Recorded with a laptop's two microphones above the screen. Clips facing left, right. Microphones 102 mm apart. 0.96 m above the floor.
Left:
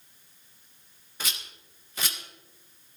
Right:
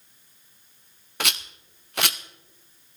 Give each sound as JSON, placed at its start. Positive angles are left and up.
{"t": 1.2, "sound": "a rattle", "side_deg": -70, "distance_m": 0.6}